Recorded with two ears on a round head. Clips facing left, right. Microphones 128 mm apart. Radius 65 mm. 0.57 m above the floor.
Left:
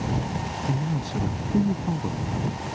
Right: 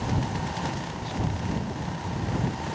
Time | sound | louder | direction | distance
0.7 | a man speaking | left 5 dB | 60° left (ahead or behind) | ?